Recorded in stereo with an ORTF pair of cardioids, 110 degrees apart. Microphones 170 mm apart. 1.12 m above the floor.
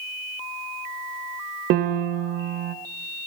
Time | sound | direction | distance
1.7 | a piano | 70° right | 0.6 m